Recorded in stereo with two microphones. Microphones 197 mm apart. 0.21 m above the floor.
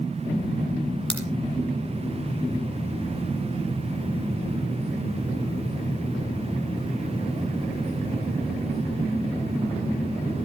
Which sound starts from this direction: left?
A crack, at 1.1 s.